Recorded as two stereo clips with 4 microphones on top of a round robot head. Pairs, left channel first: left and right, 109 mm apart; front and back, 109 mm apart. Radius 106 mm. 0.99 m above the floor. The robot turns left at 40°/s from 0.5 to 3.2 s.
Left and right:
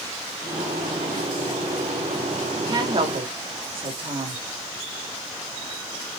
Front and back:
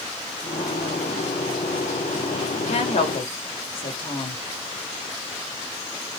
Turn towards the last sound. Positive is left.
turn(degrees=-50)